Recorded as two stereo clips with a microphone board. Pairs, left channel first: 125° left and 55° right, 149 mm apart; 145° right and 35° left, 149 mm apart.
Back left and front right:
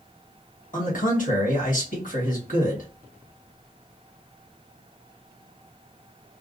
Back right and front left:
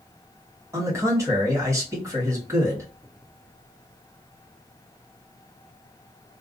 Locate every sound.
0.7 s a man speaking: 105° left, 1.4 m